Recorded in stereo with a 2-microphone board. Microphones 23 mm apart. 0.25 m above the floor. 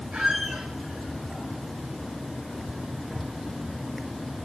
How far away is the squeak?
About 6 m.